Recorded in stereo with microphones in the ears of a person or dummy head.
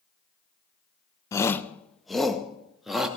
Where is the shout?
20° left (ahead or behind), 0.9 m; by 3.1 s centre (ahead or behind), 2.5 m.